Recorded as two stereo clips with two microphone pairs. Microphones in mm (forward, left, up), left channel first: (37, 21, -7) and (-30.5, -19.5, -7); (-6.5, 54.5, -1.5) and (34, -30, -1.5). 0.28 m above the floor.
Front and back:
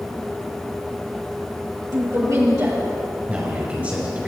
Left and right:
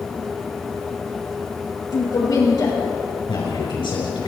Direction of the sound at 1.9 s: 165° left.